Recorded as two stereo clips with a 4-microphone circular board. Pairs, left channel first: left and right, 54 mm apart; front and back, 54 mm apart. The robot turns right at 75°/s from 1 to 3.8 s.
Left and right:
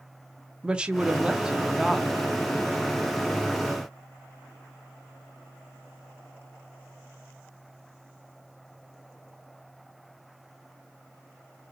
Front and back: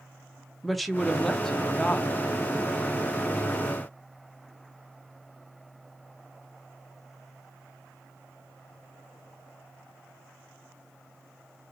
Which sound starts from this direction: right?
A woman speaking, at 0.6 s.